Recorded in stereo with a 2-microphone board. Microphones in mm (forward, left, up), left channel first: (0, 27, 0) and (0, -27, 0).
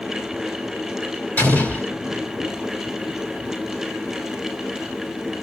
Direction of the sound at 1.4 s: 35° left (ahead or behind).